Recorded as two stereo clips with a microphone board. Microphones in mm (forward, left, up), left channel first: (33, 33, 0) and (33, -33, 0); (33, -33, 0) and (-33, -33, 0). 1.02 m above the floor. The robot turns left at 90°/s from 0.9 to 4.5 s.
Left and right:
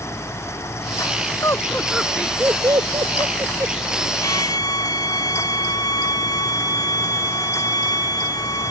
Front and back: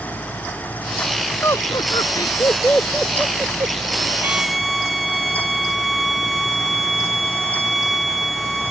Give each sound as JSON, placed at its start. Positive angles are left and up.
{"t": 1.4, "sound": "laughter", "azimuth_deg": 55}
{"t": 4.2, "sound": "a violin", "azimuth_deg": 115}